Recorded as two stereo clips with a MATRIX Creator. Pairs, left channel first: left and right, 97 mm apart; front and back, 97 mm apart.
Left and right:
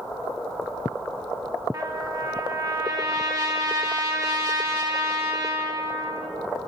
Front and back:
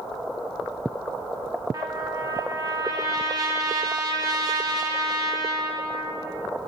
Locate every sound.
1.7 s a trumpet: 135° right, 0.6 m